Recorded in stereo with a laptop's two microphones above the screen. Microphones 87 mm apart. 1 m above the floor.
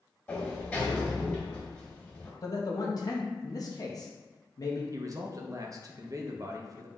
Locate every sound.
0.3 s a sliding door: 20° left (ahead or behind), 1.7 m
2.4 s a man speaking: 45° left (ahead or behind), 0.8 m
4.9 s a man speaking: 40° right (ahead or behind), 0.6 m